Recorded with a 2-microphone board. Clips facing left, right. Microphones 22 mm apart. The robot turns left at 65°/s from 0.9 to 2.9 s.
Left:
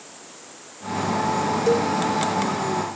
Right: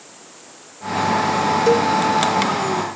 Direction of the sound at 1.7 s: 30° right (ahead or behind).